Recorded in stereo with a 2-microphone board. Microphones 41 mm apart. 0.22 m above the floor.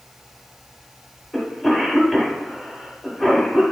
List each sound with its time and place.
1.3 s a cough: 5° left (ahead or behind), 1.0 m